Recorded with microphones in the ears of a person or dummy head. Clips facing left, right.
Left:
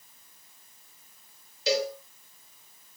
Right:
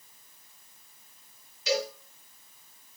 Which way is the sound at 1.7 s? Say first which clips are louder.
Left 2 dB; 30° left (ahead or behind).